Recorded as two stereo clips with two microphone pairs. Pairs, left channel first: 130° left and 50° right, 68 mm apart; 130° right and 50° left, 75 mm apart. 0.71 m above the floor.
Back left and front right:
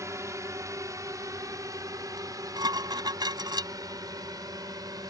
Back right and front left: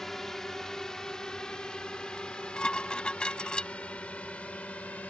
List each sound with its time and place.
0.0 s a drone: 45° right; by 5.1 s 55° right
2.2 s dishes clattering: 50° right